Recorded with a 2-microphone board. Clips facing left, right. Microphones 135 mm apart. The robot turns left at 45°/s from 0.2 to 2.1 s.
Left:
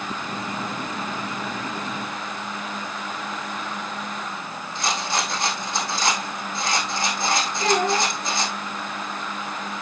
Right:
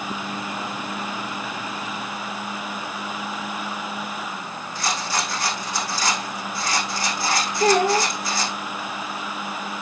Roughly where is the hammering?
No hammering in this recording.